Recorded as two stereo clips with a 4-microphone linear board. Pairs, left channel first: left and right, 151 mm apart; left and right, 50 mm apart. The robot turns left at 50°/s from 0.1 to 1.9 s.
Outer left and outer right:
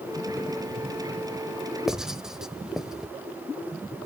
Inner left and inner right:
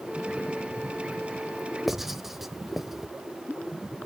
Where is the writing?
5° right (ahead or behind), 0.8 m.